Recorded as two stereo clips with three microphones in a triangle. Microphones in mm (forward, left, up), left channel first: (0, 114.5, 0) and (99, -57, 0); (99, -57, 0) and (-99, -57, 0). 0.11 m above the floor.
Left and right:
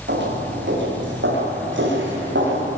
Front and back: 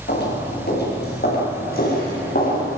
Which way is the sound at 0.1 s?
35° right.